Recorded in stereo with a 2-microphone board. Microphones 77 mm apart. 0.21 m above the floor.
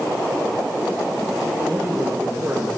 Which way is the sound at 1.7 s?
15° right (ahead or behind).